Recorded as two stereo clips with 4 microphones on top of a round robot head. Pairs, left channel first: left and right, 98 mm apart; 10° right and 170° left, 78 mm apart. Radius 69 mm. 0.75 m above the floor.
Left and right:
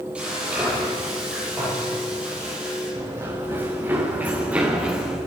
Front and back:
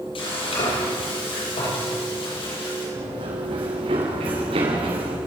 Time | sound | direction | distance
0.1 | frying | 10° right | 10 m
3.0 | running footsteps | 150° right | 6 m